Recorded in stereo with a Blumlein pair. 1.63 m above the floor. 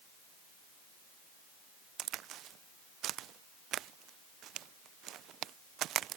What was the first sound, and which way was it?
A crack, 30° right.